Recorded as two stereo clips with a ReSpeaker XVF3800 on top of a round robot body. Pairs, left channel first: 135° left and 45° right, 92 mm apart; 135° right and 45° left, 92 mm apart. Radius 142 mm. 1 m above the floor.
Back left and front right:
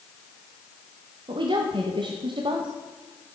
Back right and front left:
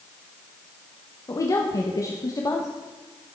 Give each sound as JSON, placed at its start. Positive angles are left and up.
{"t": 1.3, "sound": "a woman speaking", "azimuth_deg": -80, "distance_m": 1.0}